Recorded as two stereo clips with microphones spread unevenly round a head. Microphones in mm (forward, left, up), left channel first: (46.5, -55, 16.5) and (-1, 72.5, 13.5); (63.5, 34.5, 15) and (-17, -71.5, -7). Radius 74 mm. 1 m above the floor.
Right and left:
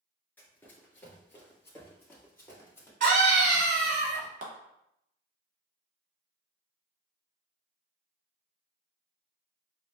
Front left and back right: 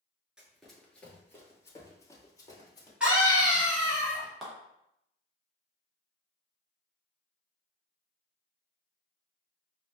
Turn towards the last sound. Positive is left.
turn(degrees=145)